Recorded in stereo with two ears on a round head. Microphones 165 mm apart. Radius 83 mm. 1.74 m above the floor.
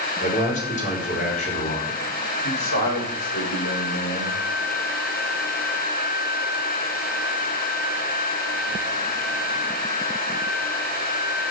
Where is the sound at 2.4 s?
75° left (ahead or behind), 8 m.